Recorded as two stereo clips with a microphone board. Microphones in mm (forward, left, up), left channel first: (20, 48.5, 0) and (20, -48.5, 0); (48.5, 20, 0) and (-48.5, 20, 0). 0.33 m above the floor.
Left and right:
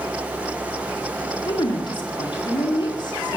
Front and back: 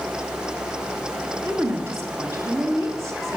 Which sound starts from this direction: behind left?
A woman speaking, at 1.4 s.